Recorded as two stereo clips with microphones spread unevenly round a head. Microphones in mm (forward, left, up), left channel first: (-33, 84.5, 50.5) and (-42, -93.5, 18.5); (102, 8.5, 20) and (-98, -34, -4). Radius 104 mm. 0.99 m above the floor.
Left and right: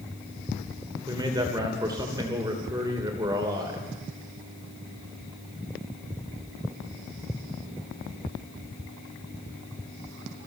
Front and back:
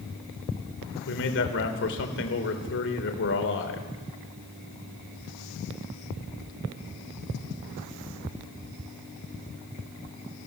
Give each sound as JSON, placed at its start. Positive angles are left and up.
{"t": 1.1, "sound": "a man speaking", "azimuth_deg": -20, "distance_m": 3.5}